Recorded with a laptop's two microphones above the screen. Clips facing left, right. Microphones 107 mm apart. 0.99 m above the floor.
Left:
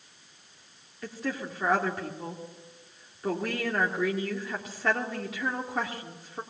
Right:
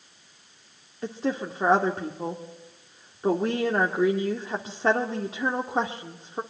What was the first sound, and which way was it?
A woman speaking, 30° right (ahead or behind).